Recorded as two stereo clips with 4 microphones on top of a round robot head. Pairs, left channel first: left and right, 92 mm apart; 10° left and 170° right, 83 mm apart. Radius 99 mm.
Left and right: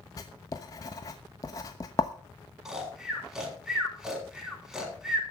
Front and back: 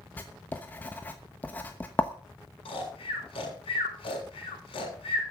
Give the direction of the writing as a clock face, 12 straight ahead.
10 o'clock.